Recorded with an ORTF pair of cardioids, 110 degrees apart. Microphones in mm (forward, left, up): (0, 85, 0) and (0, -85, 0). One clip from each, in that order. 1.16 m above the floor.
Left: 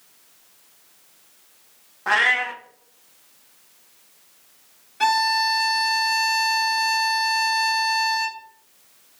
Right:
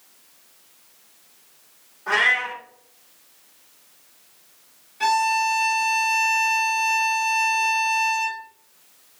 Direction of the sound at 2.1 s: 65° left.